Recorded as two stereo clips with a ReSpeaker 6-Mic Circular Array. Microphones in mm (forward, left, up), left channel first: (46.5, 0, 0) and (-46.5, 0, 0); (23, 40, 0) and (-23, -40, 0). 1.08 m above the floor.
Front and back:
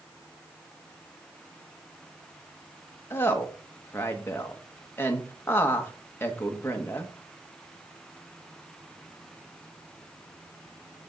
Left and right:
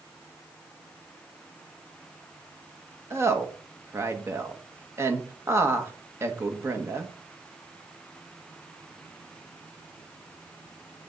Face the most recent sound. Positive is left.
turn(degrees=-65)